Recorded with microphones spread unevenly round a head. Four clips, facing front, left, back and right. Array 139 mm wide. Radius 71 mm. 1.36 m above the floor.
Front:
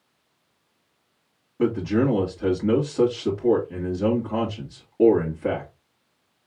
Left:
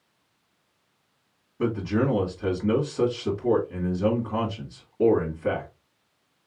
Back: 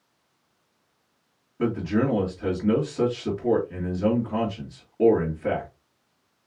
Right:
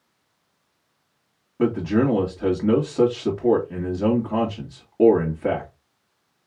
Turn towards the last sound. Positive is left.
turn(degrees=-70)